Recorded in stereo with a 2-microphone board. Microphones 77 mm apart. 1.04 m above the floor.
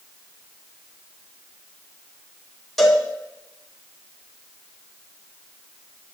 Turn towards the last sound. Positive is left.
turn(degrees=0)  # may be behind; listen again after turning